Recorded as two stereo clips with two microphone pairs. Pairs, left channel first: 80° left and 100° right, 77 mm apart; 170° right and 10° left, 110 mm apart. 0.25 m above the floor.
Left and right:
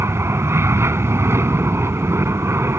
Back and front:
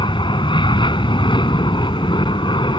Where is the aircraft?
145° right.